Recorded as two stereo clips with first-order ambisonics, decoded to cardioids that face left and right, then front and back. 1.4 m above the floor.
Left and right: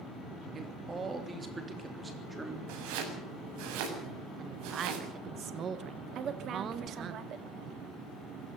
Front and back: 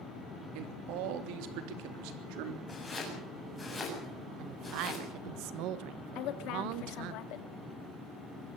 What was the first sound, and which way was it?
A man speaking, 160° right.